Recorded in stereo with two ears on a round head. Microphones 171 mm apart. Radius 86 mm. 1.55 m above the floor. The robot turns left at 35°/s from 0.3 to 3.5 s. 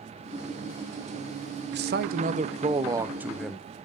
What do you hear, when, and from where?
1.7 s a man speaking: 120° right, 0.9 m; by 3.7 s straight behind, 0.9 m